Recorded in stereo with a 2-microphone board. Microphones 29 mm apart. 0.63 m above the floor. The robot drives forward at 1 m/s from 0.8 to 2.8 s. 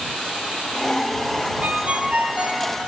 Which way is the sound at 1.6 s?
55° right (ahead or behind).